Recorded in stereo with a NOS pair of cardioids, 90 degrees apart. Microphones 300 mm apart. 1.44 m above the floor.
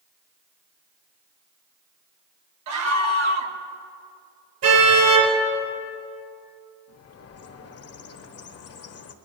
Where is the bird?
55° left, 1.0 m.